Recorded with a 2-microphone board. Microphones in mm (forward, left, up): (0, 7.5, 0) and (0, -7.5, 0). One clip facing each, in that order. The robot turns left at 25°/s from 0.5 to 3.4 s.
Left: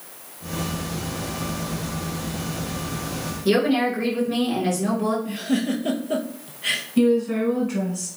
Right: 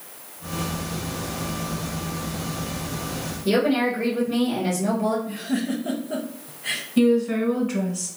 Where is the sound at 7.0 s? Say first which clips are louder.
Right 1 dB; 10° right (ahead or behind), 1.2 m.